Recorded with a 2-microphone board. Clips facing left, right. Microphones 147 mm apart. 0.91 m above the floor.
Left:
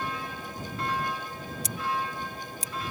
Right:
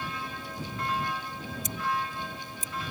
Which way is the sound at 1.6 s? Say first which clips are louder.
Even; 75° left (ahead or behind).